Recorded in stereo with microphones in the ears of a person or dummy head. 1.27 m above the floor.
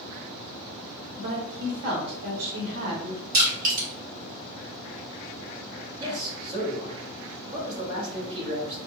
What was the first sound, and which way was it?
A woman speaking, 70° right (ahead or behind).